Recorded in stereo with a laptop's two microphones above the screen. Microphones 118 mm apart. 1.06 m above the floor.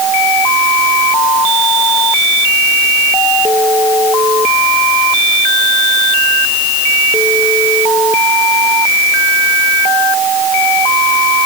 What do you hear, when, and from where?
Only background noise.